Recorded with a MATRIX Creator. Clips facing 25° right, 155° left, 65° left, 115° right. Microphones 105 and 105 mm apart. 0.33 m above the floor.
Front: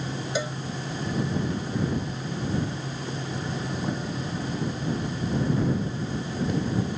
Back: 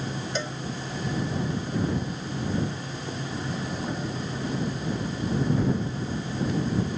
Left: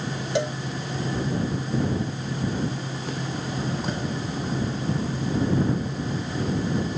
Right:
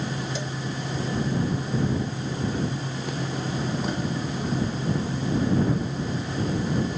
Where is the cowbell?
60° left.